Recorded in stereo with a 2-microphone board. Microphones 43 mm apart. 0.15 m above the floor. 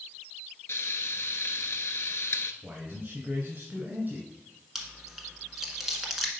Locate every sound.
0.7 s frying: 65° left (ahead or behind), 0.6 m
2.6 s a man speaking: 40° right (ahead or behind), 1.9 m
4.8 s chewing: 5° right (ahead or behind), 1.5 m